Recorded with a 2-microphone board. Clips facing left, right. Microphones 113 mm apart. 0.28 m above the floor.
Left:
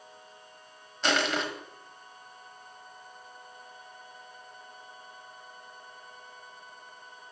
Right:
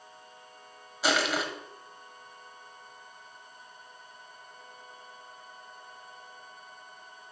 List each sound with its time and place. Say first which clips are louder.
1.0 s crushing: even; 5° right (ahead or behind), 1.1 m